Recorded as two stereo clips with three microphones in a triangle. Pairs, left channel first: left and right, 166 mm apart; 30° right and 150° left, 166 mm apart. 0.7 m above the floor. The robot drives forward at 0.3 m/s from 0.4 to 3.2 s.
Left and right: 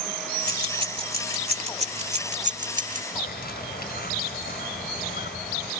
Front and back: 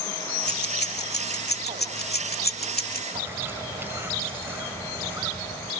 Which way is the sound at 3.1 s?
75° left.